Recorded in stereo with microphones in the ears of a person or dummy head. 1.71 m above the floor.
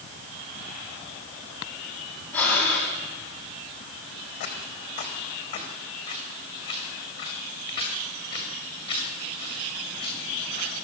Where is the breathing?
10° left (ahead or behind), 6 m.